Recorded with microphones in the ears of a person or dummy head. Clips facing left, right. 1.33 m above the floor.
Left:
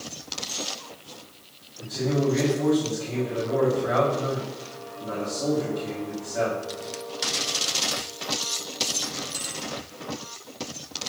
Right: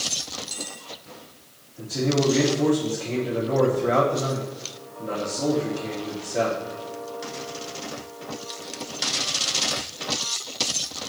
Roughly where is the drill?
No drill in this recording.